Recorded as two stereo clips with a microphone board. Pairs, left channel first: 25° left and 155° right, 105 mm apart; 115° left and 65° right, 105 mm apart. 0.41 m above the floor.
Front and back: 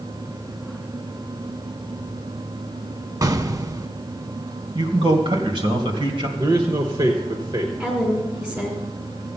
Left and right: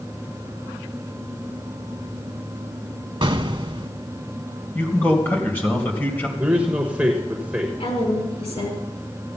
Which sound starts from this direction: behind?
A man speaking, at 4.8 s.